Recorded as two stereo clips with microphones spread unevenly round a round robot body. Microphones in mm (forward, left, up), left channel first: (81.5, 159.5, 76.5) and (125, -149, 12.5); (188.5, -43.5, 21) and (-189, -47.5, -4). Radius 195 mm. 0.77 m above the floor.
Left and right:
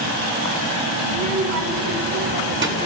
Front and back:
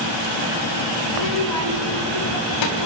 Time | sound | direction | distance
1.1 | a child speaking | 40° right | 4.5 m